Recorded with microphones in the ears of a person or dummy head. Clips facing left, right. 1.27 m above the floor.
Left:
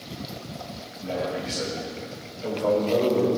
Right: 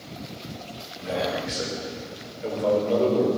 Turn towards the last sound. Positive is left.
turn(degrees=-10)  # may be behind; listen again after turning